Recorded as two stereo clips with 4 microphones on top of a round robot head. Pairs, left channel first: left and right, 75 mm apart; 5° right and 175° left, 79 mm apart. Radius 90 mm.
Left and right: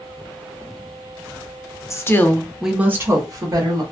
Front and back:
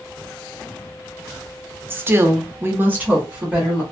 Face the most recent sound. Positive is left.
turn(degrees=-105)